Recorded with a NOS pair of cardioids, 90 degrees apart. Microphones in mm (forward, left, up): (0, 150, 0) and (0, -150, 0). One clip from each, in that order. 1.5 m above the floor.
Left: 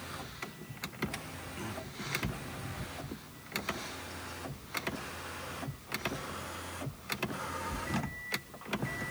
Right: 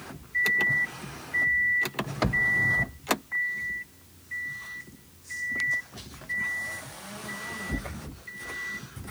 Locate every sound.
Only background noise.